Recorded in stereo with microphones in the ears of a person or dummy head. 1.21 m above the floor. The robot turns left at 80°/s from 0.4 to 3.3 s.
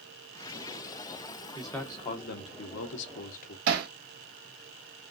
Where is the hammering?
60° right (ahead or behind), 1.1 m.